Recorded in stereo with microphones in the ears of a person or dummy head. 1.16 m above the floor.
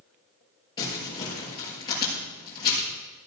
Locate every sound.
0.8 s crumpling: 25° left (ahead or behind), 6.5 m